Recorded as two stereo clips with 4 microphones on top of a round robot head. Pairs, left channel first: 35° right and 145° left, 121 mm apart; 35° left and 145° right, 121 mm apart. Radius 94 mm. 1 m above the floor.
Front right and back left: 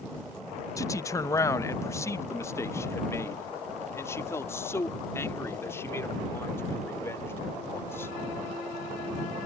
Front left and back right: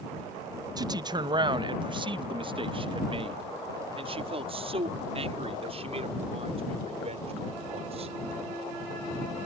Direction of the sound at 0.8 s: 95° right.